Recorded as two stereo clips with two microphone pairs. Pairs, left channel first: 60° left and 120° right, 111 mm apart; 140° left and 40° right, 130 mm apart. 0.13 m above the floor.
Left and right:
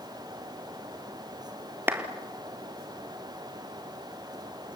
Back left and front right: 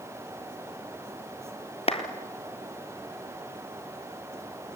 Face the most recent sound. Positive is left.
turn(degrees=170)